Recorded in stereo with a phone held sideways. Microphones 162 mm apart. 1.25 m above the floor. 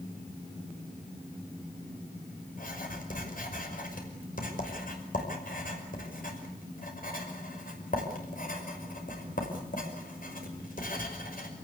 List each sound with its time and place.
2.5 s writing: 65° left (ahead or behind), 5.5 m